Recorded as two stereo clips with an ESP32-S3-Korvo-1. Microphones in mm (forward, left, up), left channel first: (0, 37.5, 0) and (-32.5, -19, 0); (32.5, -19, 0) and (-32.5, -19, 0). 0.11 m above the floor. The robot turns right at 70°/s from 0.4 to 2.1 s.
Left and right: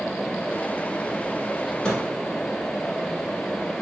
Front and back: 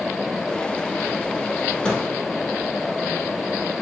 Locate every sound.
1.8 s a microwave: 20° left, 1.1 m; by 2.0 s 35° left, 1.1 m